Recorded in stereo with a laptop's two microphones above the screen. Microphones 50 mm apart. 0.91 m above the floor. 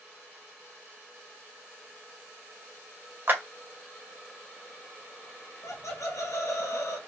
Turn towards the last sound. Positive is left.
turn(degrees=75)  # may be behind; listen again after turning